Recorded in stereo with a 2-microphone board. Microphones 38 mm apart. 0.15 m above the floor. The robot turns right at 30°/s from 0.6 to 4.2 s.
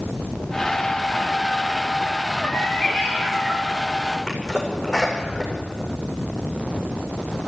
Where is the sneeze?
15° left (ahead or behind), 10 m.